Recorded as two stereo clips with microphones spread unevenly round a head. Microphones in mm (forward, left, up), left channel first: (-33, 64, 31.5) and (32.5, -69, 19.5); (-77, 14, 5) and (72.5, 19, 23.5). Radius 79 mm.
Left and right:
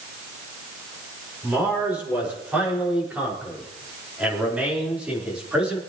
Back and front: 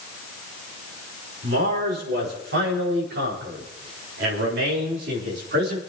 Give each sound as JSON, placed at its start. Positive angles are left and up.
{"t": 1.4, "sound": "a man speaking", "azimuth_deg": 15, "distance_m": 5.5}